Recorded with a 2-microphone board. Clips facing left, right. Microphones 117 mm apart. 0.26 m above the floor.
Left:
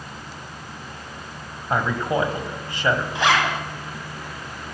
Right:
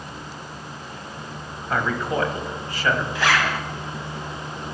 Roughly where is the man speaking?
Left.